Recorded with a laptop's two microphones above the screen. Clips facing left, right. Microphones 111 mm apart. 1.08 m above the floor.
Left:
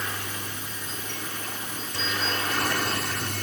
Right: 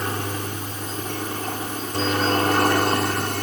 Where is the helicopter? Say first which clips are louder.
Right 7 dB; 45° right (ahead or behind); by 3.4 s 50° right (ahead or behind).